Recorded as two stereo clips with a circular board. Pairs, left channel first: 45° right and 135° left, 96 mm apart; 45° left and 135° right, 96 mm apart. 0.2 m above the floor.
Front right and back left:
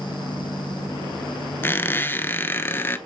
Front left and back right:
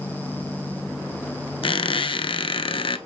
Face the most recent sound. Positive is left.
turn(degrees=20)